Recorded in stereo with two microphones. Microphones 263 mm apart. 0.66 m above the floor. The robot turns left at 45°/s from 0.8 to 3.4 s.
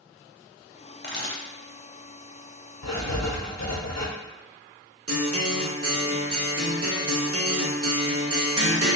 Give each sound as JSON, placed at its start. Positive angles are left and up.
{"t": 1.0, "sound": "a camera shutter", "side_deg": 40, "distance_m": 0.7}
{"t": 2.8, "sound": "writing", "side_deg": 80, "distance_m": 0.7}
{"t": 5.1, "sound": "a guitar", "side_deg": -65, "distance_m": 0.6}